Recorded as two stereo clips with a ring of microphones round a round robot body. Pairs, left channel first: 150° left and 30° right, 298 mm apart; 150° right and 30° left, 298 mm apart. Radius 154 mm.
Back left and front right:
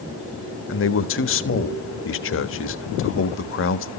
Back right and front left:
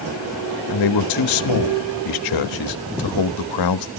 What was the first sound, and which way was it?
A man speaking, 160° right.